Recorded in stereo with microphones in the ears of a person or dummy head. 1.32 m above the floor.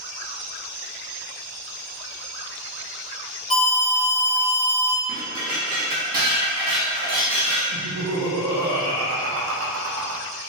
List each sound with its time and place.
3.5 s an alarm: 40° left (ahead or behind), 0.7 m
5.1 s dishes clattering: 50° right (ahead or behind), 1.4 m
7.7 s laughter: 85° right, 0.7 m